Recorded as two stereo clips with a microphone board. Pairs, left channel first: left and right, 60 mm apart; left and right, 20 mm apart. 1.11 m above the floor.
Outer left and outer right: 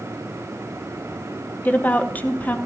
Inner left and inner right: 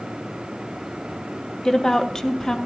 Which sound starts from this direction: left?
A woman speaking, at 1.6 s.